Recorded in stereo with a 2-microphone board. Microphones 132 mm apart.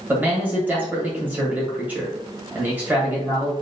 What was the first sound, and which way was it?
A man speaking, 15° right (ahead or behind).